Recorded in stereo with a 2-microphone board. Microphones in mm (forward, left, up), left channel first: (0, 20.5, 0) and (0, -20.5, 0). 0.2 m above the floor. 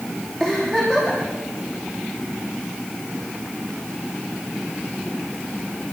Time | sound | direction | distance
0.4 | a giggle | 10° left (ahead or behind) | 8 m